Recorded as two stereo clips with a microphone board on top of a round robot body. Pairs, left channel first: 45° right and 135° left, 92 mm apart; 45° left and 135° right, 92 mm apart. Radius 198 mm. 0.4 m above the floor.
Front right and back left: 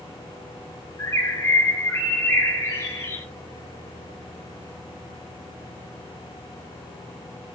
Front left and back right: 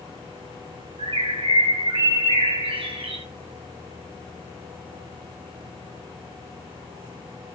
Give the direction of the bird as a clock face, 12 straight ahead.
4 o'clock.